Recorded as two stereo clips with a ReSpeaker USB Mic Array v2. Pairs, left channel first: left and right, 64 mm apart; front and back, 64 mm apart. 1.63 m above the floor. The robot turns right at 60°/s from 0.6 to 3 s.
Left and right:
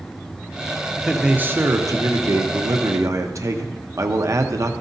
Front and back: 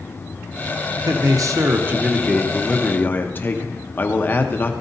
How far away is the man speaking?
About 1.0 m.